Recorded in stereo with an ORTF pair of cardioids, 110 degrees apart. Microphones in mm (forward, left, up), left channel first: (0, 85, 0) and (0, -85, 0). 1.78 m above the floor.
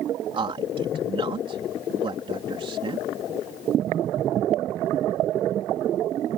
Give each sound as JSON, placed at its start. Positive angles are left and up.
{"t": 0.3, "sound": "a man speaking", "azimuth_deg": -30}